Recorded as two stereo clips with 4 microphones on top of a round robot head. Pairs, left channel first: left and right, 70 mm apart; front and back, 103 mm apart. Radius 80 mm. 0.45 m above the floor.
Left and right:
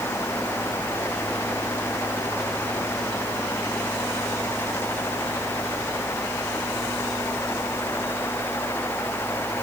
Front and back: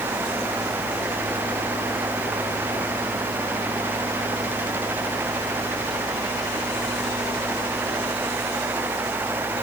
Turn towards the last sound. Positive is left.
No sound to turn to.